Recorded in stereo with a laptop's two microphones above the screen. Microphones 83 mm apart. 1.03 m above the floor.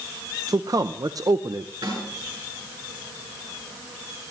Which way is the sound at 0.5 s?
50° right (ahead or behind).